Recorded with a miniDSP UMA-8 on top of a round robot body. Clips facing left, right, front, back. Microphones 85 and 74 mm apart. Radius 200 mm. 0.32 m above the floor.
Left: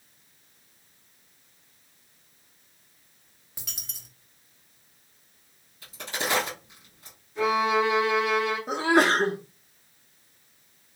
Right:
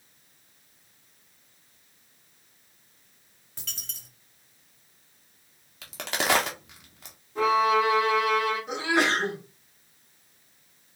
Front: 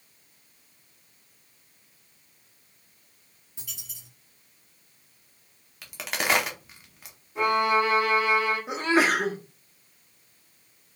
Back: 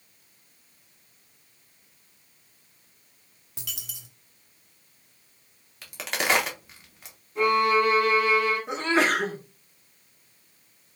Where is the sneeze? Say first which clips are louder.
Left 7 dB, front 3 dB; 80° left, 1.0 m.